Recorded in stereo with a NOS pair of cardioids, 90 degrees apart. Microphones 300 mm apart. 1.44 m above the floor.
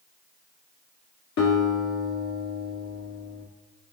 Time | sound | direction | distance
1.4 | a guitar | 65° left | 2.5 m